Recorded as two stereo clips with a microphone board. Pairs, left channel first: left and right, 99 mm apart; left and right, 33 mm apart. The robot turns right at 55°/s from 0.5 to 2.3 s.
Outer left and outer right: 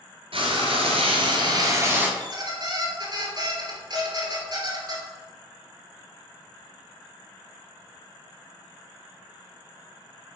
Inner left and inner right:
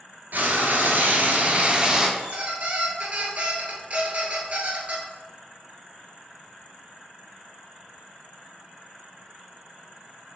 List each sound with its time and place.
0.3 s frying: 105° right, 0.8 m; by 2.1 s 15° right, 0.8 m
2.2 s a squeak: 40° right (ahead or behind), 0.9 m; by 5.0 s 45° right (ahead or behind), 0.9 m